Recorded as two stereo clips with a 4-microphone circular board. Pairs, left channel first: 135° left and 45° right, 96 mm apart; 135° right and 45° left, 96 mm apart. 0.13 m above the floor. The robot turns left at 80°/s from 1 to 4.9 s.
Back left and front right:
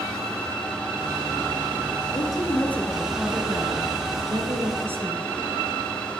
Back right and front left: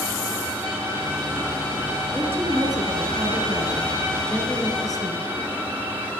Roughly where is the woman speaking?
Behind left.